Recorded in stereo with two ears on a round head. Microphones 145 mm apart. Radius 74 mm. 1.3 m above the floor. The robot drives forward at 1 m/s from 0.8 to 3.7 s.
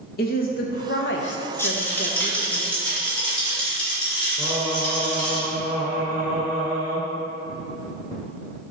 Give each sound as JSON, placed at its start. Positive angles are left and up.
{"t": 0.2, "sound": "a woman speaking", "side_deg": 55, "distance_m": 1.2}
{"t": 1.6, "sound": "a rattle", "side_deg": 15, "distance_m": 1.2}
{"t": 4.4, "sound": "singing", "side_deg": -10, "distance_m": 2.5}